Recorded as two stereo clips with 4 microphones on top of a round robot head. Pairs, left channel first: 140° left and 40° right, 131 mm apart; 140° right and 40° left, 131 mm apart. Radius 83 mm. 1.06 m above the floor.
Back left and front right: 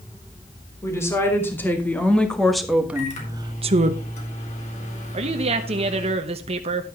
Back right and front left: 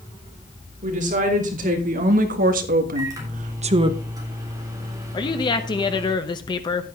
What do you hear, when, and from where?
0.8 s a woman speaking: 70° left, 3.5 m; by 4.0 s 15° right, 1.1 m
3.0 s a microwave: 105° left, 3.5 m
5.1 s a woman speaking: 85° right, 0.9 m